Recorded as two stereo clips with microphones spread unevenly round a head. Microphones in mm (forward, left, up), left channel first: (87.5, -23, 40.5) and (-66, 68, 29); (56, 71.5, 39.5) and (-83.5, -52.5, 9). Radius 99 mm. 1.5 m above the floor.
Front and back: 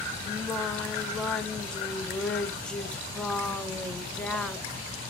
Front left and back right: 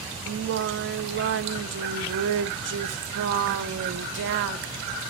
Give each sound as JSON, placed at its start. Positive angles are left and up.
{"t": 0.3, "sound": "singing", "azimuth_deg": -120, "distance_m": 0.7}